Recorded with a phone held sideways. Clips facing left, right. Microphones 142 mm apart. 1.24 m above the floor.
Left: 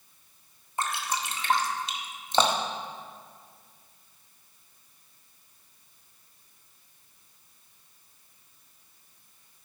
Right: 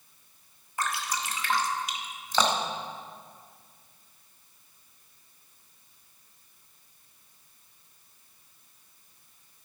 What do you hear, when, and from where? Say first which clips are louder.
0.8 s dripping: left 1 dB; 25° left (ahead or behind), 1.3 m